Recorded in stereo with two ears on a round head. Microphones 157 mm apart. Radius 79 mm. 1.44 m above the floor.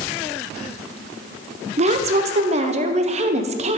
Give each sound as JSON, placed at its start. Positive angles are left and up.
{"t": 1.8, "sound": "a woman speaking", "side_deg": -35, "distance_m": 0.5}